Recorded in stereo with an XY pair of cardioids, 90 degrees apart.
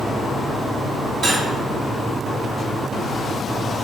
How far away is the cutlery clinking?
About 1.6 m.